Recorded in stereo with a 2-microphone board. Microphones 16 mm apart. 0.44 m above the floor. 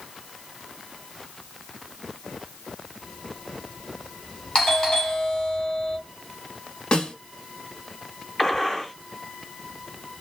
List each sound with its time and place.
4.5 s a doorbell: 35° left (ahead or behind), 2 m
6.9 s a snare drum: 60° left (ahead or behind), 1.1 m
8.4 s a gunshot: 20° left (ahead or behind), 1.2 m